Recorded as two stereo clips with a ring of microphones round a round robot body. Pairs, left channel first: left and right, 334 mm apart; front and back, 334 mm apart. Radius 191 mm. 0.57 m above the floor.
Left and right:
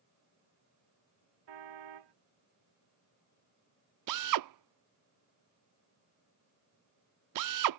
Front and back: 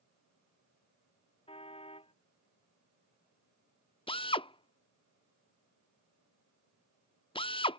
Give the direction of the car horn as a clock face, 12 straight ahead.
2 o'clock.